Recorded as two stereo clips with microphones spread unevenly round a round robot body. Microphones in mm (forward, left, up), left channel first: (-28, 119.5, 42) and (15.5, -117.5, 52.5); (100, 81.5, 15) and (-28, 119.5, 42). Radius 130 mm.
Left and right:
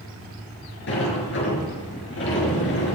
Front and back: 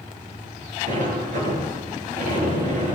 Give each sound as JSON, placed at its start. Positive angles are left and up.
{"t": 0.9, "sound": "a sliding door", "azimuth_deg": 140, "distance_m": 7.5}